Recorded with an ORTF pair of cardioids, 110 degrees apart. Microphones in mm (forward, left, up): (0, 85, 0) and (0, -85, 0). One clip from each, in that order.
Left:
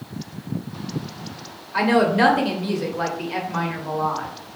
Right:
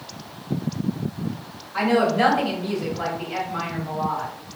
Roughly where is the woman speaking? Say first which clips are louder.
Left 2 dB; ahead left.